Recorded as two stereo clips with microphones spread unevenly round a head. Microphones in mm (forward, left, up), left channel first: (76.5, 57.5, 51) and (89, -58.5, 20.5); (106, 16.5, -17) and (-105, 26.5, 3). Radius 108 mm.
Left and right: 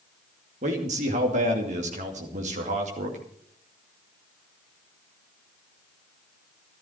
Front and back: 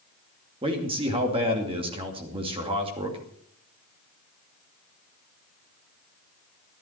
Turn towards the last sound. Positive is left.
turn(degrees=-115)